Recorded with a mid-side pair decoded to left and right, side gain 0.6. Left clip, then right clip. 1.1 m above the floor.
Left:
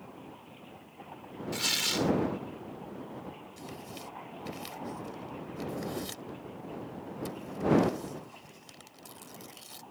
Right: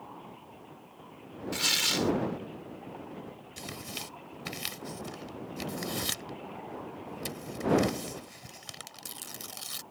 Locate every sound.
1.5 s tearing paper: 15° right
3.6 s tearing paper: 50° right